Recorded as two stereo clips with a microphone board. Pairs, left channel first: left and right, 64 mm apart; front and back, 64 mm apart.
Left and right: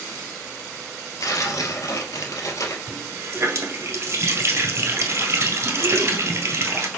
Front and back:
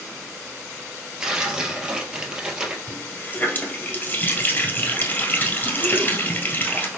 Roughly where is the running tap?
Ahead right.